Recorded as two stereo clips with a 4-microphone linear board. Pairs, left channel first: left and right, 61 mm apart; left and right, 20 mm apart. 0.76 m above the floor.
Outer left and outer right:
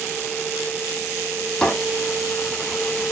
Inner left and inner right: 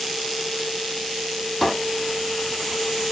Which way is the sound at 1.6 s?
10° left (ahead or behind).